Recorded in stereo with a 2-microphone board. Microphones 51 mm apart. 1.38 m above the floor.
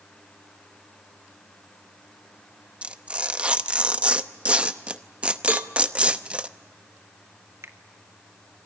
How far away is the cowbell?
About 0.7 m.